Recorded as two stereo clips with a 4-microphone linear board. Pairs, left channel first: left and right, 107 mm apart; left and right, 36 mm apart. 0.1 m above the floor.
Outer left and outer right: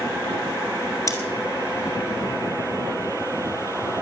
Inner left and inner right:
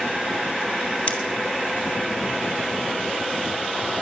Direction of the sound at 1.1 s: 30° left (ahead or behind).